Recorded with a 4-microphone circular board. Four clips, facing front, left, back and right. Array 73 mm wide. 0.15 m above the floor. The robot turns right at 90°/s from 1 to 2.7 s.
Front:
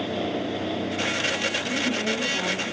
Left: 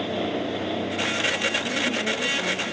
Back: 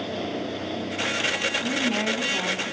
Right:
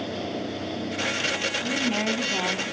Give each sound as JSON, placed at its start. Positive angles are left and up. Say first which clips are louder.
{"t": 1.6, "sound": "a woman speaking", "louder": "even, back 1 dB", "azimuth_deg": 180, "distance_m": 4.0}